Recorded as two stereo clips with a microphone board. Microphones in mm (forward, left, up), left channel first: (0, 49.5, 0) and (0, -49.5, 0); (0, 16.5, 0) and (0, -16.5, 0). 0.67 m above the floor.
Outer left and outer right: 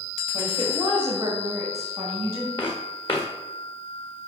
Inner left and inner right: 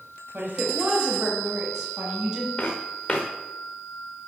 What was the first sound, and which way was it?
A woman speaking, 60° right (ahead or behind).